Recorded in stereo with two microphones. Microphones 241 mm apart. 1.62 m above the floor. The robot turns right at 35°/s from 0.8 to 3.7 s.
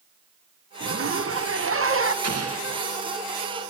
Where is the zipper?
110° right, 1.1 m; by 2.1 s 65° right, 1.1 m.